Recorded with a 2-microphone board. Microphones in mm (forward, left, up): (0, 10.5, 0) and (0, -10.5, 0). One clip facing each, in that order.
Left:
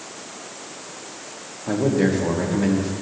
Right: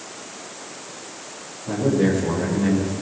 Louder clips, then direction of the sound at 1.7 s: Even; 70° left (ahead or behind).